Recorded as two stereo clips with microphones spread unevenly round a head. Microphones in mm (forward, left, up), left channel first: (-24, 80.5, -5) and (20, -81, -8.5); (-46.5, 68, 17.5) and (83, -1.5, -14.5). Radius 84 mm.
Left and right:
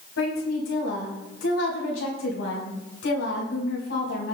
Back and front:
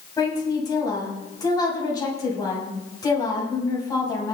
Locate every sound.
0.2 s a woman speaking: 85° left, 7 m